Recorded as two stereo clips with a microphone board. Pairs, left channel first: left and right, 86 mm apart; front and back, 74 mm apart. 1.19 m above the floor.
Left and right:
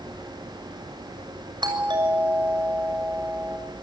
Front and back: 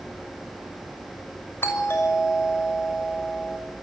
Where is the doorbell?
60° right, 6.5 m.